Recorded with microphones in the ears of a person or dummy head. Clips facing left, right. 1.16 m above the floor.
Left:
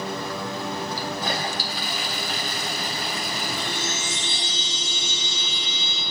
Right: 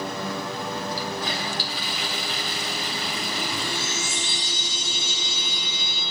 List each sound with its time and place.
0.9 s a toilet flushing: 45° left (ahead or behind), 2.5 m
3.6 s a chime: 10° right (ahead or behind), 8 m